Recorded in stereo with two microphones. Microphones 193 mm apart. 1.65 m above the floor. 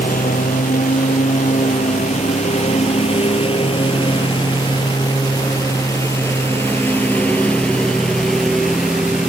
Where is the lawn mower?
45° left (ahead or behind); by 9.3 s 5° right (ahead or behind).